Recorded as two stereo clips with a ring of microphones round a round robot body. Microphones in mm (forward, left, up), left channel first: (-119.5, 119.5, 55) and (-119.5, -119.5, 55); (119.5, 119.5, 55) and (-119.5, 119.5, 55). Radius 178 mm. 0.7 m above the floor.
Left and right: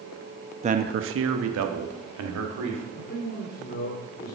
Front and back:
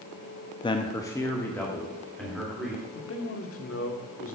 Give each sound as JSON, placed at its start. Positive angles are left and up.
{"t": 0.6, "sound": "a man speaking", "azimuth_deg": -50, "distance_m": 0.6}
{"t": 3.0, "sound": "a man speaking", "azimuth_deg": 30, "distance_m": 1.7}